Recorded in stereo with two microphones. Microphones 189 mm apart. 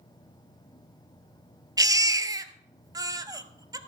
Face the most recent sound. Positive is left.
turn(degrees=-15)  # may be behind; listen again after turning